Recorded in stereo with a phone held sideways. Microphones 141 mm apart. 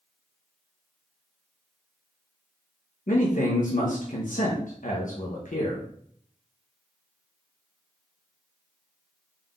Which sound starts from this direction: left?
A man speaking, at 3.1 s.